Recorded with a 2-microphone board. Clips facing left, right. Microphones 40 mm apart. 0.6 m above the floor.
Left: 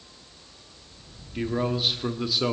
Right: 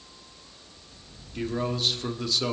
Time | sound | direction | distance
1.4 | a man speaking | 10° left (ahead or behind) | 1.1 m